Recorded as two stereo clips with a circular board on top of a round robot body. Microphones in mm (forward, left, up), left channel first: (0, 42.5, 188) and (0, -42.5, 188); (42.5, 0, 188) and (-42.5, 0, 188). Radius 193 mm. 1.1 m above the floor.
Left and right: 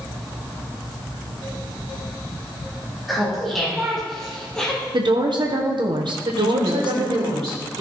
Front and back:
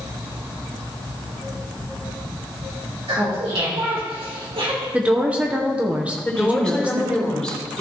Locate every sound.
3.1 s laughter: straight behind, 4 m; by 4.8 s 170° left, 2.5 m
4.9 s a woman speaking: 105° right, 1.2 m
6.2 s a woman speaking: 80° right, 4 m